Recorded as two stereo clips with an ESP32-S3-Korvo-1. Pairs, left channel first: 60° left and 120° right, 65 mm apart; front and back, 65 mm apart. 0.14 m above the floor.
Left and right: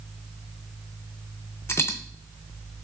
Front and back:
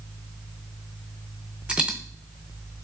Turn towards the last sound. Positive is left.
turn(degrees=110)